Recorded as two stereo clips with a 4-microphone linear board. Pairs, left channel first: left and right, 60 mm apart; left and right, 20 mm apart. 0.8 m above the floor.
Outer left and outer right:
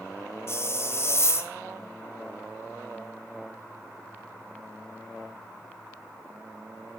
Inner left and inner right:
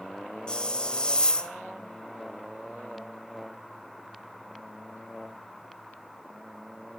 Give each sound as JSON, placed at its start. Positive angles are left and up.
{"t": 0.5, "sound": "a hiss", "side_deg": 45, "distance_m": 3.0}